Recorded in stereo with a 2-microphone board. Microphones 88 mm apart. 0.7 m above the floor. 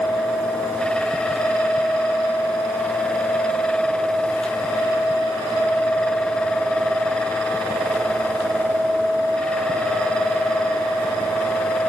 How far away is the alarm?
No alarm in this recording.